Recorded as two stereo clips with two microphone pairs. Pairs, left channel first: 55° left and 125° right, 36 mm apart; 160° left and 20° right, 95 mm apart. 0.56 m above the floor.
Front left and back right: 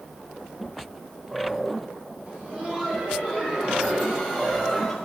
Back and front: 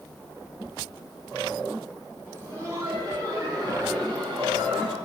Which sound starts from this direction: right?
Laughter, at 2.2 s.